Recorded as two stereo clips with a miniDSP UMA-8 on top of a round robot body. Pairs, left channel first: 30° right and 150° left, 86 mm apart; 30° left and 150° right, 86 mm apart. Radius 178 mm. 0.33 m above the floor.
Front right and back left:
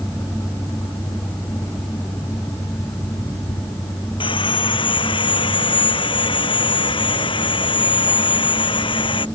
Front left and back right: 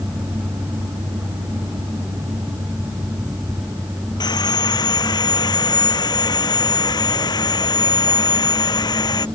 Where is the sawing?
10° right.